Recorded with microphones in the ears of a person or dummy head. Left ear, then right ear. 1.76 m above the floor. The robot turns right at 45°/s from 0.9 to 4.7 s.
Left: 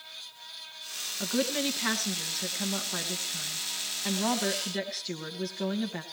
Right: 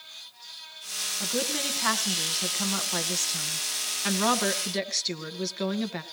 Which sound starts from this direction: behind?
A woman speaking, at 1.2 s.